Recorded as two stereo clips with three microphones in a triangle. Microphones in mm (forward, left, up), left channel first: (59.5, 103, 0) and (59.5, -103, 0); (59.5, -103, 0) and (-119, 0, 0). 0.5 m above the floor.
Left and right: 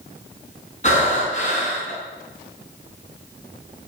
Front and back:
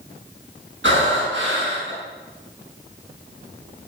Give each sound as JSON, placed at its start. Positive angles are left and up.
{"t": 0.8, "sound": "breathing", "azimuth_deg": 140, "distance_m": 6.0}